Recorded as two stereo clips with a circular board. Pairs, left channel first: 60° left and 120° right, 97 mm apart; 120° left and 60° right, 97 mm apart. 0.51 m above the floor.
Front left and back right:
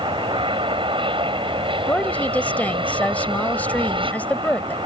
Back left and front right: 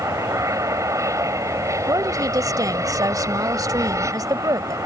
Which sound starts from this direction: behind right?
An aircraft, at 0.0 s.